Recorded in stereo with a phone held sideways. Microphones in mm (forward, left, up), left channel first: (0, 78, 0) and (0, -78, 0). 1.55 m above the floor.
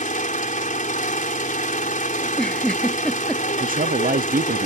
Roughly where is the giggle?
Centre.